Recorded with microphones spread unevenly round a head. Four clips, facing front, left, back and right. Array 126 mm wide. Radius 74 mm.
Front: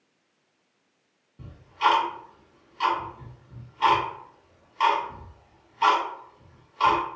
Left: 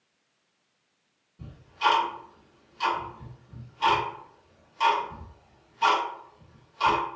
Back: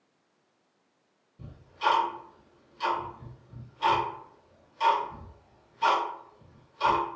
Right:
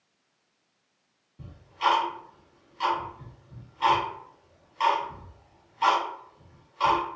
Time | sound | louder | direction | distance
1.4 | ticking | even, front 5 dB | 10° right | 1.6 m